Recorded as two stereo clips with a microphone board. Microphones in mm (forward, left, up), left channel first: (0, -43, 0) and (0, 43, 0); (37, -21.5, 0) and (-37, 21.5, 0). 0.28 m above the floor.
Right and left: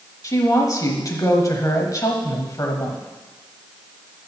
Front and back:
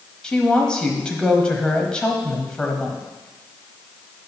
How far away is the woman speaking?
About 1.3 m.